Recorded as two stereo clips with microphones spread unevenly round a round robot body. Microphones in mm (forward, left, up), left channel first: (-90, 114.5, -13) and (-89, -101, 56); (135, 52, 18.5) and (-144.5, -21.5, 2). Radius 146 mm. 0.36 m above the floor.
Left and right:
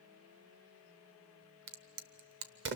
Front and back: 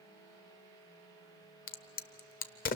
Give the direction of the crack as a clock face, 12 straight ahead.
1 o'clock.